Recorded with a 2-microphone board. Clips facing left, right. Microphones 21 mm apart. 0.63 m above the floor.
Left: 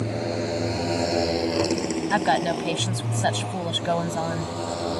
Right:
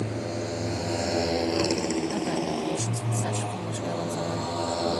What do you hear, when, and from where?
0.0 s a motorcycle: 35° left (ahead or behind); by 5.0 s 15° right (ahead or behind)
2.1 s a woman speaking: 80° left